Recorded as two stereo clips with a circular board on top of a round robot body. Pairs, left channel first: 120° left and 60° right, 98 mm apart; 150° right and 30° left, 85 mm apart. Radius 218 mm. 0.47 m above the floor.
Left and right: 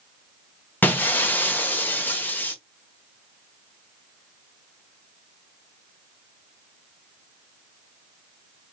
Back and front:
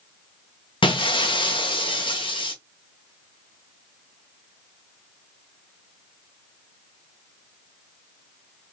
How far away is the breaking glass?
About 1.0 m.